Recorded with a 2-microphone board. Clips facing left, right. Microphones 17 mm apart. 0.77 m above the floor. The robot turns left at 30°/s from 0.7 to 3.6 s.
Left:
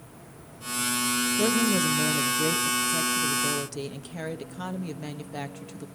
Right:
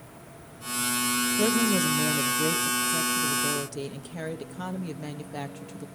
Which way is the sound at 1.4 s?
5° right (ahead or behind).